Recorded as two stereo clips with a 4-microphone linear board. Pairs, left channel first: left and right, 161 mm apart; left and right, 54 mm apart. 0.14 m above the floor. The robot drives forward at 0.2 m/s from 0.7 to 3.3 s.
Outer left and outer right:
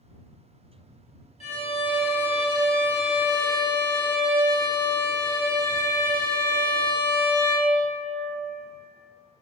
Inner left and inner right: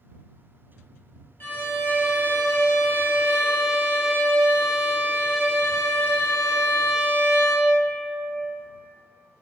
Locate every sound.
1.4 s a violin: 45° left (ahead or behind), 0.7 m; by 7.7 s 30° left (ahead or behind), 1.0 m